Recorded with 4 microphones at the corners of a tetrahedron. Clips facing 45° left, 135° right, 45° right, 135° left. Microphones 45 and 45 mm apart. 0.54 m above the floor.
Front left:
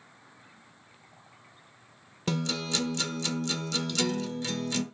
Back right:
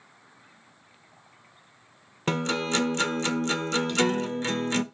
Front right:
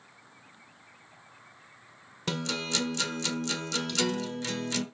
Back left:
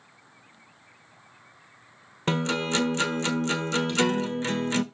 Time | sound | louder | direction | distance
2.3 | a guitar | back right 5 dB, back left 6 dB | 175° right | 1.1 m